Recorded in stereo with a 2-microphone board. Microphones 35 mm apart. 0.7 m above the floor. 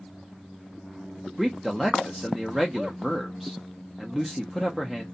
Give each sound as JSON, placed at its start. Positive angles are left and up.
{"t": 1.4, "sound": "a man speaking", "side_deg": -5, "distance_m": 0.5}